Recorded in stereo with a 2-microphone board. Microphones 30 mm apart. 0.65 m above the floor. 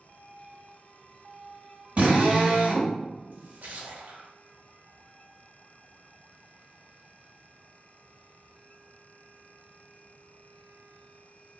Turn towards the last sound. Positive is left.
turn(degrees=-75)  # may be behind; listen again after turning